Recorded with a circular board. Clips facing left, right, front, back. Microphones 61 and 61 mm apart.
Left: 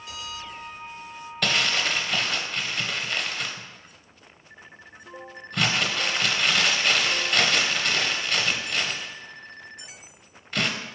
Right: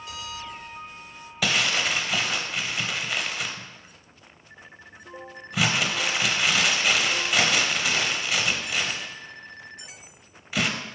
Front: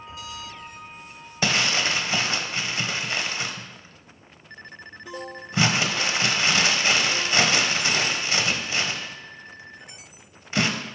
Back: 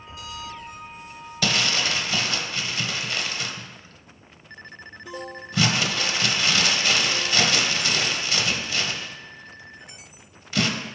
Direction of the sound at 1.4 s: 15° right.